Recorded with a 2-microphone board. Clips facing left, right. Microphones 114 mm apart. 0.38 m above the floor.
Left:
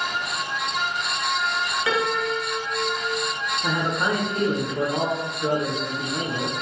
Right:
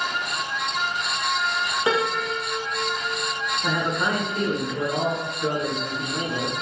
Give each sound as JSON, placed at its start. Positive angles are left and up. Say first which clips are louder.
{"t": 1.9, "sound": "a piano", "louder": "right 1 dB", "side_deg": -30, "distance_m": 0.8}
{"t": 3.6, "sound": "a man speaking", "louder": "left 1 dB", "side_deg": 15, "distance_m": 0.8}